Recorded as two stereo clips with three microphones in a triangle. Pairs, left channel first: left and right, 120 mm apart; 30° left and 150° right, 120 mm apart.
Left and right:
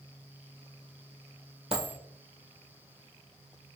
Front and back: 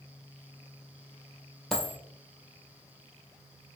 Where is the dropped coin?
55° right, 1.7 m.